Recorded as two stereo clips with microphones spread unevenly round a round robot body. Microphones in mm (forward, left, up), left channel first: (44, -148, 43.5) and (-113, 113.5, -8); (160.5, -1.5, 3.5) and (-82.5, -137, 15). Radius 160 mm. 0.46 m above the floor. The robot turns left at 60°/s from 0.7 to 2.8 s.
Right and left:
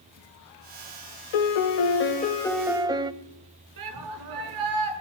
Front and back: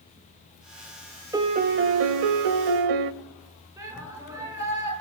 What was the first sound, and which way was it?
A piano, 75° right.